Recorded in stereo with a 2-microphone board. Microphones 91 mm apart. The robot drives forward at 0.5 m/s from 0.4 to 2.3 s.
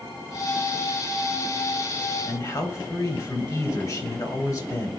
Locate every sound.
2.3 s a man speaking: 45° left (ahead or behind), 2 m